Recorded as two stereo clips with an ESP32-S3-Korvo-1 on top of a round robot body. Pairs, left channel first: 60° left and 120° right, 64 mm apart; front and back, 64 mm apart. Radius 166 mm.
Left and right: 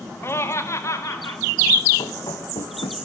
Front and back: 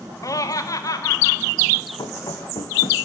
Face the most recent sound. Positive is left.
turn(degrees=30)